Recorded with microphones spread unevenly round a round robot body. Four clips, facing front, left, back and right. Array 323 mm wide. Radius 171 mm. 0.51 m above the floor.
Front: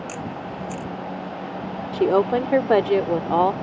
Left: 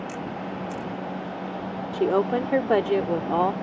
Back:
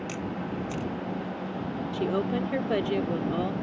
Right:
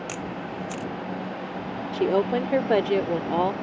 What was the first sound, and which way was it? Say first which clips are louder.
A camera shutter: left 1 dB, front 2 dB; 100° right.